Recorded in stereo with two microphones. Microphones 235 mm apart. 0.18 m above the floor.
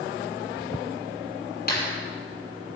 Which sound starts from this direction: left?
A clap, at 1.7 s.